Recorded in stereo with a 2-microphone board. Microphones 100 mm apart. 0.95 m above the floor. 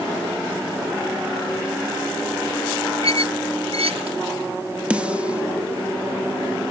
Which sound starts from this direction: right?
A squeak, at 3.0 s.